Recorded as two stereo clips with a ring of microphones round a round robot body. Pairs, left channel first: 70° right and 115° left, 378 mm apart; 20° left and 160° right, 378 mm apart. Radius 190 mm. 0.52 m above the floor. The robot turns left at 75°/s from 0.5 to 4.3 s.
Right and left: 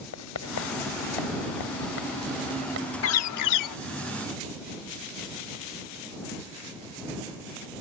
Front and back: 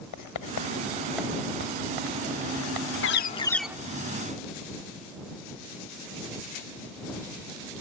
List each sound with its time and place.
0.1 s writing: 15° right; by 2.9 s 165° left
3.0 s a bird: 25° right; by 3.8 s 80° right